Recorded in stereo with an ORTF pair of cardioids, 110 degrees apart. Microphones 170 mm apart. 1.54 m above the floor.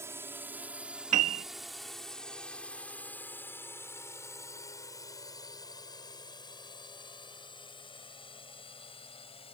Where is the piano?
45° right.